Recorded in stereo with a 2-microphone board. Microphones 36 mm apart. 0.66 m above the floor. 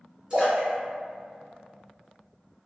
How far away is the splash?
About 1.6 m.